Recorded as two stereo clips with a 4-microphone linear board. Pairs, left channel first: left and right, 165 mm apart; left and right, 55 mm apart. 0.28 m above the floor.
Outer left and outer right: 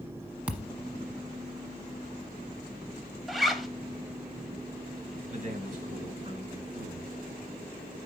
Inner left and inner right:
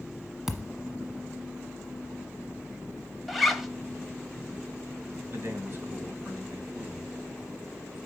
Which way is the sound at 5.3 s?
50° right (ahead or behind).